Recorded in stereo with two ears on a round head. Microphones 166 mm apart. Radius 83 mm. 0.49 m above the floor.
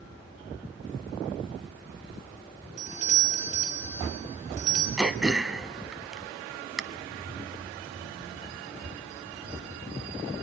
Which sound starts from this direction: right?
A doorbell, at 2.8 s.